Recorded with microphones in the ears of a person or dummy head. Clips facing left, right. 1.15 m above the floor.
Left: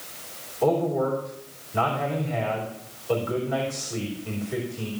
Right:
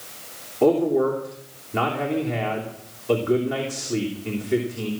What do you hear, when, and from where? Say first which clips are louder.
0.6 s a man speaking: right 4 dB; 75° right (ahead or behind), 3 m